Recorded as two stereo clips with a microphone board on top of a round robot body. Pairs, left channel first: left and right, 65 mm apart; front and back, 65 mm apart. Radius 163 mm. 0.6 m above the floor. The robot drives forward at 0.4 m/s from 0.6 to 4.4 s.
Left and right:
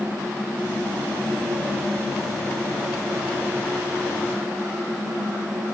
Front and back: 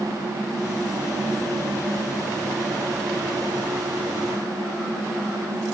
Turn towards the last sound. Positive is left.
No sound to turn to.